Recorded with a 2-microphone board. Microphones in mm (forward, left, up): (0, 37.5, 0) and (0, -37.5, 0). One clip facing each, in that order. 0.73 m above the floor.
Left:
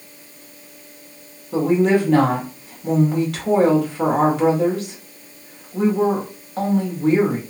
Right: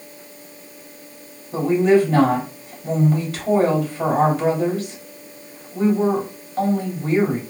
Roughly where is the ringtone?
No ringtone in this recording.